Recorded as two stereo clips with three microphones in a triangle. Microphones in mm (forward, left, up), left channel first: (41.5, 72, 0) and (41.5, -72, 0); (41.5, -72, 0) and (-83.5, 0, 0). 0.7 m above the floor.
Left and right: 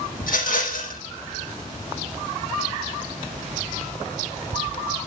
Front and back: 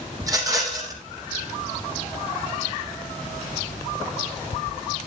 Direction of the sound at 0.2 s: 85° left.